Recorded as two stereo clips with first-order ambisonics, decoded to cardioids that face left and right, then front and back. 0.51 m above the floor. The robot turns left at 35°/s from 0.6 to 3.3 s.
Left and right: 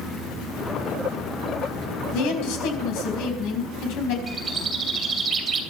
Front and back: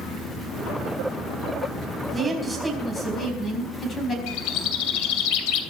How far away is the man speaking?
About 4 m.